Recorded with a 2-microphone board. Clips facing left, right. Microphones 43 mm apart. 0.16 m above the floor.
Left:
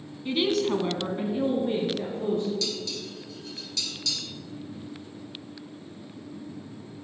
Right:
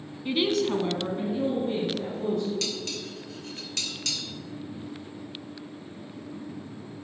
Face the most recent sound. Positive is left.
turn(degrees=-60)  # may be behind; listen again after turning